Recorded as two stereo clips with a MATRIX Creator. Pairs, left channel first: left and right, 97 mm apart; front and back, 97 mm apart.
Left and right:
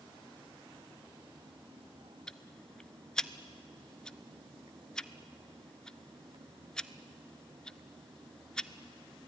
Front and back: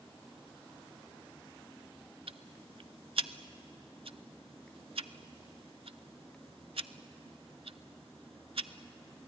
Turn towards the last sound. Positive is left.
turn(degrees=170)